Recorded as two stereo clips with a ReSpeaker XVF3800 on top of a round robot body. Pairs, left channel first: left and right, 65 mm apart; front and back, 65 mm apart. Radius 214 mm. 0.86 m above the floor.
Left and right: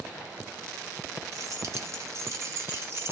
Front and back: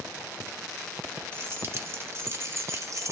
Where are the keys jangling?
125° right, 2 m; by 3.1 s 140° right, 1.2 m.